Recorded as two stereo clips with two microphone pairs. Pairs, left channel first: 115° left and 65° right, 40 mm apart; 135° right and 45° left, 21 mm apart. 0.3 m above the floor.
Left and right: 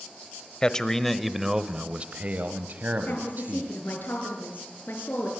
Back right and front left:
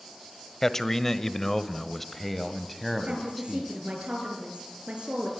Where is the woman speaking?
75° left, 5.5 m.